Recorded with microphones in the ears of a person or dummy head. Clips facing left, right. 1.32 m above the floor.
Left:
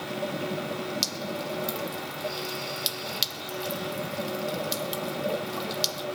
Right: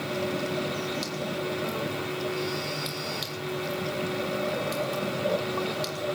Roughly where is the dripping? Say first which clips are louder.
Right 2 dB; left.